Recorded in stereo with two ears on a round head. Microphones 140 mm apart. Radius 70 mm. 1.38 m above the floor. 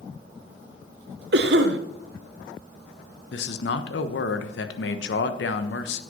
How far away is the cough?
About 1.2 m.